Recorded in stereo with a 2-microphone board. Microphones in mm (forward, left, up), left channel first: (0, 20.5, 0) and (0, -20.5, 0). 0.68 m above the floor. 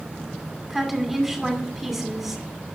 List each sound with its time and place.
0.7 s a woman speaking: centre (ahead or behind), 2.5 m